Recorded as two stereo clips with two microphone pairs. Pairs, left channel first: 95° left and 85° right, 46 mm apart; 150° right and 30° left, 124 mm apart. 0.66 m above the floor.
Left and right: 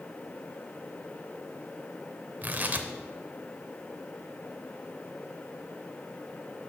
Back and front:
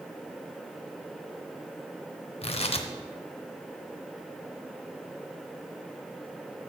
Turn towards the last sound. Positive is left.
turn(degrees=-135)